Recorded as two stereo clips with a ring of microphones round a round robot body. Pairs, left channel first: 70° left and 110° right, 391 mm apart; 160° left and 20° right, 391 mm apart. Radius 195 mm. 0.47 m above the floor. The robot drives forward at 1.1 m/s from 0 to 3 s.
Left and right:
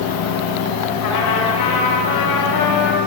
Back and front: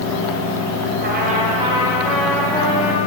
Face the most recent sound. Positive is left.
turn(degrees=100)